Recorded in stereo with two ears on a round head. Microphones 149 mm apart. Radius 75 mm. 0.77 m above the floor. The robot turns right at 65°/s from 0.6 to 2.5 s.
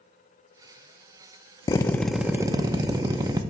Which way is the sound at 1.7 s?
150° left.